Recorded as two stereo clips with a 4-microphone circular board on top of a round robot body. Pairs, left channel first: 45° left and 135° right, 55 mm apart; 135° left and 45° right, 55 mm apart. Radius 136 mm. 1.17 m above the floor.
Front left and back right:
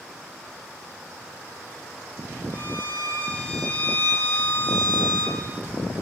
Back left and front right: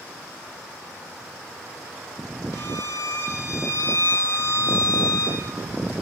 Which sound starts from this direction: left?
A violin, at 2.5 s.